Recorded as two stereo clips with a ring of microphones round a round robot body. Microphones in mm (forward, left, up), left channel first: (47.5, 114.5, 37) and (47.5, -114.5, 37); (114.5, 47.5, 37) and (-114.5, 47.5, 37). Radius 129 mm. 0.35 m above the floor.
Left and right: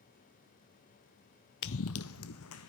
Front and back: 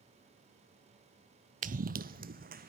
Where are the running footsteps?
130° left, 0.5 m.